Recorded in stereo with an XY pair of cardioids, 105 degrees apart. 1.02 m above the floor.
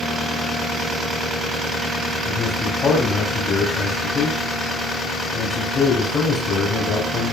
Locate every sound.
2.2 s a man speaking: 40° left, 4.5 m